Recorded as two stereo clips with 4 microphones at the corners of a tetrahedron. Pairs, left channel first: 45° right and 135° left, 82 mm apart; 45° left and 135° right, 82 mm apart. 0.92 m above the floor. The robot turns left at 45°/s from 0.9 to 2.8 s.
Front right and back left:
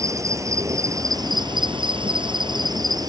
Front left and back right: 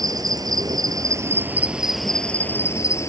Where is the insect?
175° right; by 3.1 s 100° left.